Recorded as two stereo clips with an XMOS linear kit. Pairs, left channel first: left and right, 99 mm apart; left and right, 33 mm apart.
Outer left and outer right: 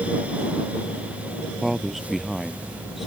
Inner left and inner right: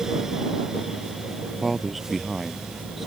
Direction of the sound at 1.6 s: 5° right (ahead or behind).